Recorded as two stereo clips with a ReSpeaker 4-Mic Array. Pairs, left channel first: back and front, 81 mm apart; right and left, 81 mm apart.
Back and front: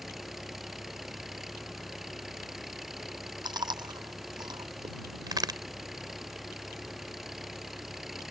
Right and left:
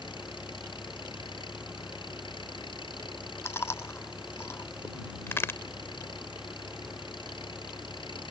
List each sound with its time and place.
0.0 s an engine running: 85° right
3.5 s chewing: 30° right
5.3 s a crack: 30° right